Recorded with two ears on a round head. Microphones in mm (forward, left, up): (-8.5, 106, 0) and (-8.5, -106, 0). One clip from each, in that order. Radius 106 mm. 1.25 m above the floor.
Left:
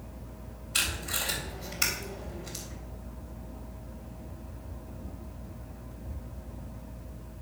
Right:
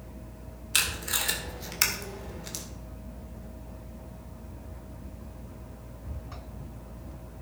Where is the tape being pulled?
45° right (ahead or behind), 2 m.